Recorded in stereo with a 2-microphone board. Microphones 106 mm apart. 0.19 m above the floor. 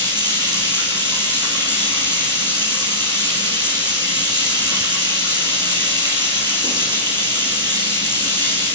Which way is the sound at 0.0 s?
45° right (ahead or behind).